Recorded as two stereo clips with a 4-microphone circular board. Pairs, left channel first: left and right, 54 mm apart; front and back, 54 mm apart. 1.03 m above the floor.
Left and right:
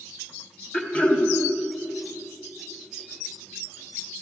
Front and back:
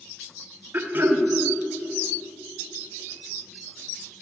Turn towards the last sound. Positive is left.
turn(degrees=150)